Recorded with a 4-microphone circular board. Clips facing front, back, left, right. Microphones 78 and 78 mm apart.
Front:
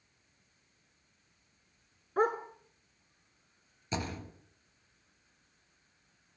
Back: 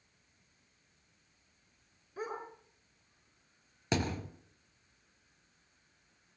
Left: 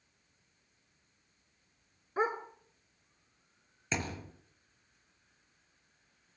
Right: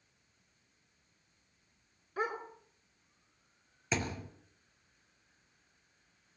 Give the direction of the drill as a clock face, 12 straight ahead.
I don't hear a drill.